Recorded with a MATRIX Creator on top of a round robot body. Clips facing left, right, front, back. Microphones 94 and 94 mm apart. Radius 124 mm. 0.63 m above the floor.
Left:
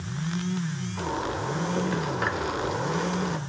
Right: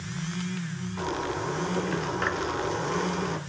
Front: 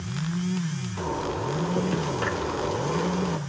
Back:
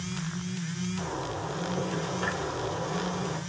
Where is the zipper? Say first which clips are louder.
Even, front 9 dB; 5° left, 3 m.